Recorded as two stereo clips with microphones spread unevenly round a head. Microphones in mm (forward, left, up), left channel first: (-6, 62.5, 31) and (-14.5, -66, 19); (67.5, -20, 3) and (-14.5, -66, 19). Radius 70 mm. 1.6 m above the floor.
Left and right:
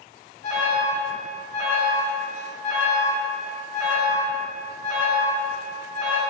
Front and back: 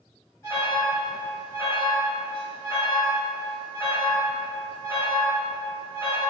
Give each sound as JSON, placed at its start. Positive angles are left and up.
{"t": 0.4, "sound": "an alarm", "azimuth_deg": 85, "distance_m": 1.4}